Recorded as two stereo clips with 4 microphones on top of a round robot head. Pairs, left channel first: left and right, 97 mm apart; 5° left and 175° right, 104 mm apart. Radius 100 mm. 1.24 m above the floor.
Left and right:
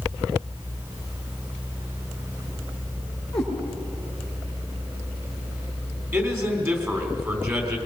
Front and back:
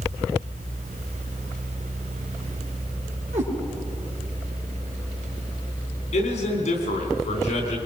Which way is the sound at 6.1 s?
25° right.